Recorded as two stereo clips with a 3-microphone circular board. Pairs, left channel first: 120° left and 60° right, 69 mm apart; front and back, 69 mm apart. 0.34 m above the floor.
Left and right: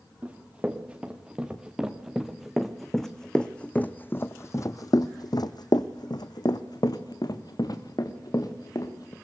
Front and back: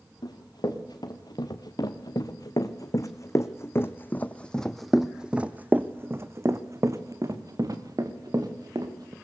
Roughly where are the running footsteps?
Ahead.